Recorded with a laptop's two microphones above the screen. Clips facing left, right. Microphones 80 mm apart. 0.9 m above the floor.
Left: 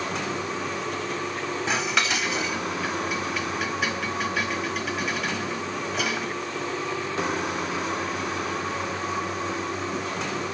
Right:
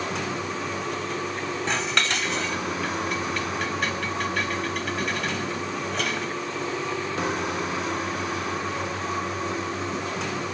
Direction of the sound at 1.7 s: 5° left (ahead or behind).